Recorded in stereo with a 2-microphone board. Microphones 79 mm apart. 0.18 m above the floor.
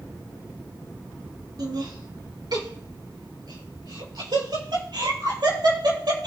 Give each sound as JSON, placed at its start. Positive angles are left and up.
{"t": 1.6, "sound": "laughter", "side_deg": -60, "distance_m": 1.8}